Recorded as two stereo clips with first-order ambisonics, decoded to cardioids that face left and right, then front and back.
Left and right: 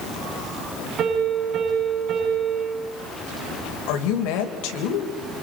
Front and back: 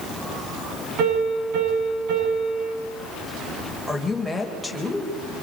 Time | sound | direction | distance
1.0 | a piano | 150° right | 9.5 m
3.9 | a woman speaking | 90° left | 3.5 m